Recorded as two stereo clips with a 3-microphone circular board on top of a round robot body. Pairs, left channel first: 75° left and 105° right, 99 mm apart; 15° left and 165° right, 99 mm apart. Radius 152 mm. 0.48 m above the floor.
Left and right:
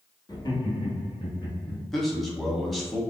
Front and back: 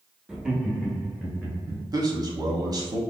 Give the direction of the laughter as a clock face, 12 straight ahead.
8 o'clock.